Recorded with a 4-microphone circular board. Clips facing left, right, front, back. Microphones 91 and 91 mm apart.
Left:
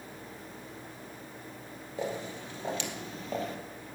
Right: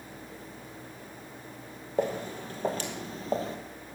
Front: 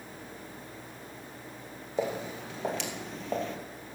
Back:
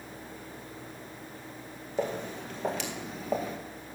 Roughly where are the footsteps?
Right.